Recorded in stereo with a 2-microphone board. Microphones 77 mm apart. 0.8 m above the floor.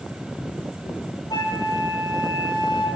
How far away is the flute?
About 1.1 m.